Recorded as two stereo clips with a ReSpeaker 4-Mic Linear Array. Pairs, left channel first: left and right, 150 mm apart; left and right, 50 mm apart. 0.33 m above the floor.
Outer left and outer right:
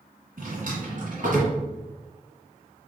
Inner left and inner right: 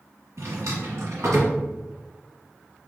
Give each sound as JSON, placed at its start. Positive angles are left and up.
{"t": 0.4, "sound": "a drawer", "side_deg": -65, "distance_m": 1.7}